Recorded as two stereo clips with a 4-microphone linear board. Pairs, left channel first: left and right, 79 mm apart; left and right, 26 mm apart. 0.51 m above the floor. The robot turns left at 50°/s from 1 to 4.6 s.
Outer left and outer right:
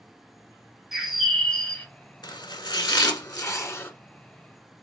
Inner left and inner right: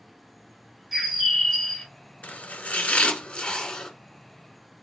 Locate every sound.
0.9 s a bird: 170° right, 1.1 m; by 1.9 s 150° left, 1.1 m
2.2 s chopping: 65° left (ahead or behind), 1.0 m; by 3.9 s 25° left (ahead or behind), 1.0 m